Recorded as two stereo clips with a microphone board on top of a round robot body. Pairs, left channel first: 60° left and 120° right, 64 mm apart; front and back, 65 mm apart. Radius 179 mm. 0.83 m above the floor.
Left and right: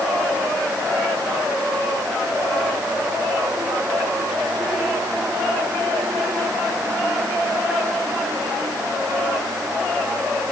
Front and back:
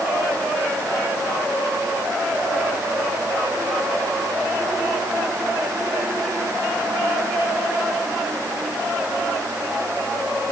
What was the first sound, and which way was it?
Only background noise.